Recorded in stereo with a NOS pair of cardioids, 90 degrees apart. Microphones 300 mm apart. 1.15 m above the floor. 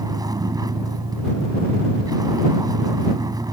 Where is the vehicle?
10° right.